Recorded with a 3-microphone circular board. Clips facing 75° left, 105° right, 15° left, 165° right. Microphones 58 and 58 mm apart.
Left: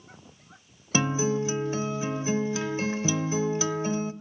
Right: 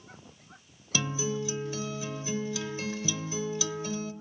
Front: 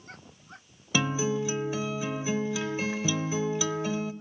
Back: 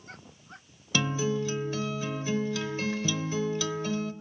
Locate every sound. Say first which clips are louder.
0.9 s a guitar: left 6 dB, front 1 dB; 85° left, 0.7 m